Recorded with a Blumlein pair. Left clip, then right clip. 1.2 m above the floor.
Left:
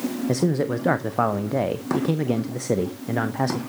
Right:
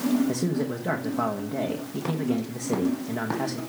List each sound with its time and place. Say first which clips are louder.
0.3 s a man speaking: left 5 dB; 65° left, 0.8 m